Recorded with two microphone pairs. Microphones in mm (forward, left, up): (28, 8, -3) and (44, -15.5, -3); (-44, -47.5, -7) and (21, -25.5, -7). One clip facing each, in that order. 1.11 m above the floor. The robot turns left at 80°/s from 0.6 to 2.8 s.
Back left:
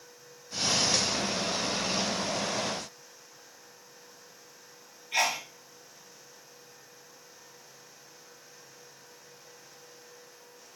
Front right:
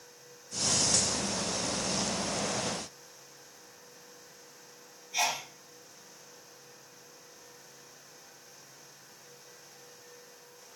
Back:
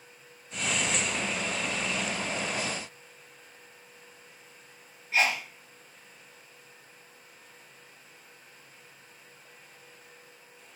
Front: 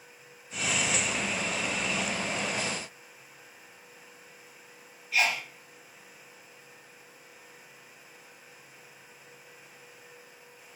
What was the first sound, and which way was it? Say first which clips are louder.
A sneeze: back left 3 dB, back 1 dB; 145° left.